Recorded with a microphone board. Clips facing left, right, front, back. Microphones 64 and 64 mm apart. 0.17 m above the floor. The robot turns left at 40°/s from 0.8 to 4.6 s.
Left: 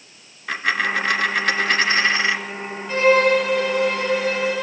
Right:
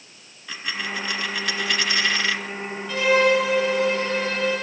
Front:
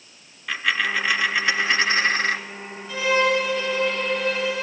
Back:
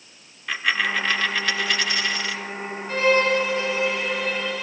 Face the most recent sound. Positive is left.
turn(degrees=75)